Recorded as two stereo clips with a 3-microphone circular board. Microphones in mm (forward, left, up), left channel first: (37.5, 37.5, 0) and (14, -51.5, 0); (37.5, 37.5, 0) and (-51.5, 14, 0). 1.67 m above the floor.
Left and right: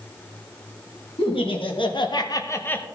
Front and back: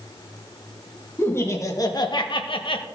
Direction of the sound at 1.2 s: 80° left.